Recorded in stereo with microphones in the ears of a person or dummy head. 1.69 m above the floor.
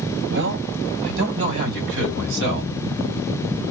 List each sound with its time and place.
0.3 s a man speaking: 65° right (ahead or behind), 1.7 m; by 2.7 s 75° right (ahead or behind), 3 m